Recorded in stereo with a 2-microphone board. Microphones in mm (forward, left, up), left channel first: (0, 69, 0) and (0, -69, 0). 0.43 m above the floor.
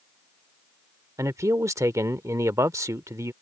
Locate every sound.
1.2 s a man speaking: 20° right (ahead or behind)